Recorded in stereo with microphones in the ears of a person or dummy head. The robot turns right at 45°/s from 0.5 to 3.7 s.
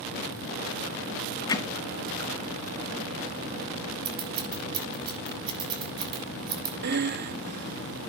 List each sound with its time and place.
1.5 s hammering: 25° left (ahead or behind), 0.8 m; by 1.7 s 20° left (ahead or behind), 0.8 m
4.0 s scissors: 25° right (ahead or behind), 6.5 m
6.8 s breathing: 50° right (ahead or behind), 0.6 m